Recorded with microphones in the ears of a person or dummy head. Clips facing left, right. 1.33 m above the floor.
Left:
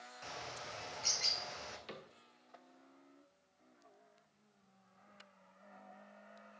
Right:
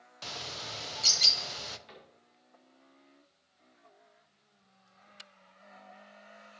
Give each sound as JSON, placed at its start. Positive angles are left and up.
{"t": 0.2, "sound": "a bird", "side_deg": -45, "distance_m": 0.8}
{"t": 1.9, "sound": "a cupboard door", "side_deg": 55, "distance_m": 1.1}